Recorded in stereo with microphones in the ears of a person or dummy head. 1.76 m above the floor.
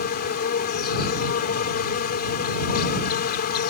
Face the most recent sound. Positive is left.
turn(degrees=50)  # may be behind; listen again after turning